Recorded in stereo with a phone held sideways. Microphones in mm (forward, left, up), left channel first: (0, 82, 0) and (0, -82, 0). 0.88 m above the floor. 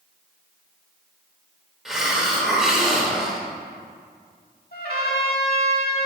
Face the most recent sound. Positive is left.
turn(degrees=65)  # may be behind; listen again after turning